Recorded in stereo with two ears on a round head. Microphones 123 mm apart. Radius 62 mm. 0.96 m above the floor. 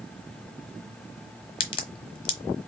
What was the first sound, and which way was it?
A crack, 35° left (ahead or behind).